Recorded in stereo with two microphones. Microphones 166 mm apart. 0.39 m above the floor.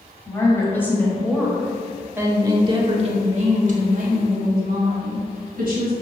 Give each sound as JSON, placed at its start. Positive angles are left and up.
{"t": 0.3, "sound": "a woman speaking", "side_deg": 20, "distance_m": 1.9}